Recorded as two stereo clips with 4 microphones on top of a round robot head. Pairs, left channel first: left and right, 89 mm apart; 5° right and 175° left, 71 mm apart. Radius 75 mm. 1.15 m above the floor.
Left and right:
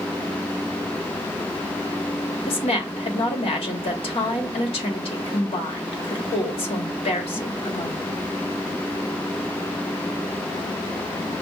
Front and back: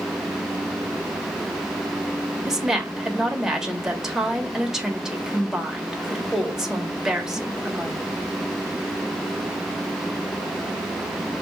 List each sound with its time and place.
2.5 s a woman speaking: 90° left, 1.4 m